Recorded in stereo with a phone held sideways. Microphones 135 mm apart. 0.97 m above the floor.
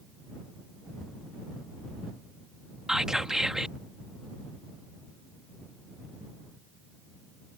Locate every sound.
2.9 s whispering: 5° right (ahead or behind)